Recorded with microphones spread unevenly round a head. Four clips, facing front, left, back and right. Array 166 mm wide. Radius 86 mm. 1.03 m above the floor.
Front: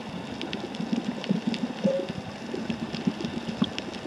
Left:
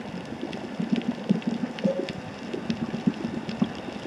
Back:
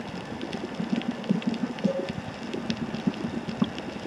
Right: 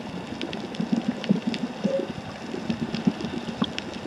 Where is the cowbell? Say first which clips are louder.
Right 1 dB, front 3 dB; 25° left, 2.5 m.